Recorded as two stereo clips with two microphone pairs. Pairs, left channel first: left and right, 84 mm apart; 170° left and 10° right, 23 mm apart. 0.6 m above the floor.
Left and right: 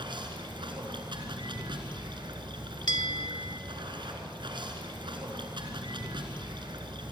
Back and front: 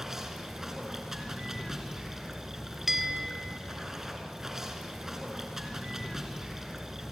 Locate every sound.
0.0 s running water: 80° right, 3.5 m
2.9 s a bell: 65° left, 1.3 m